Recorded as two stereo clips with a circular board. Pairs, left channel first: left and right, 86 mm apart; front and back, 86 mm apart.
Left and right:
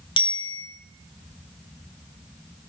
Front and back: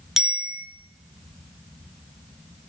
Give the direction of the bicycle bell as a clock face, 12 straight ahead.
9 o'clock.